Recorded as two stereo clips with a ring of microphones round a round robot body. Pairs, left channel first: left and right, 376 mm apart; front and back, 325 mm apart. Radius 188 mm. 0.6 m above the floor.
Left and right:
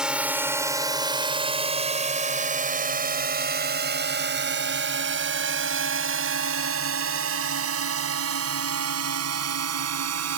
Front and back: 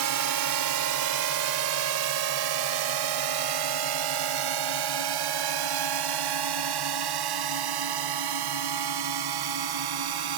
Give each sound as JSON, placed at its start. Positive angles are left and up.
{"t": 0.0, "sound": "a drone", "azimuth_deg": 180}